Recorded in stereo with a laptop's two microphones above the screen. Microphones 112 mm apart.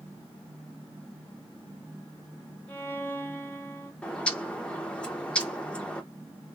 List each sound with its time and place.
2.7 s a violin: 15° left (ahead or behind), 2 m
4.0 s a bird: 10° left (ahead or behind), 1.2 m